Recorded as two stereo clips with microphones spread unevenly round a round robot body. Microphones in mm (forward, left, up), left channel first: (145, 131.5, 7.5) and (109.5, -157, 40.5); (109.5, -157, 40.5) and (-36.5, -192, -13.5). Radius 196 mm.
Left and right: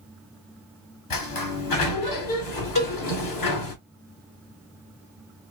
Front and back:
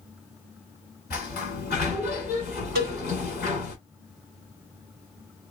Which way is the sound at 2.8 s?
150° left.